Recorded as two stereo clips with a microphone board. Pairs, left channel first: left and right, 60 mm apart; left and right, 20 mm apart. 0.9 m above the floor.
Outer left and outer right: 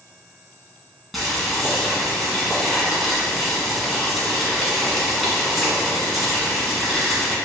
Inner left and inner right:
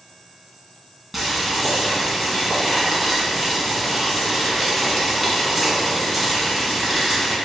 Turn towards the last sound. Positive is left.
turn(degrees=0)  # may be behind; listen again after turning